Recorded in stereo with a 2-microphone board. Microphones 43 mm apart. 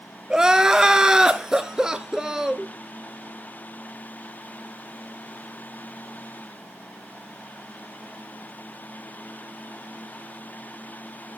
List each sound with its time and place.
0.3 s crying: 15° right (ahead or behind), 0.8 m